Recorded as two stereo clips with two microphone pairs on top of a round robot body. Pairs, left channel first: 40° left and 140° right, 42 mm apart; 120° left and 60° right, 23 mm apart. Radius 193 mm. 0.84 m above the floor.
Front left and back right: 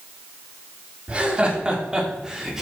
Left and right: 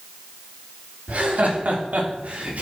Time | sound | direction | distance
1.1 | laughter | 70° right | 3.5 m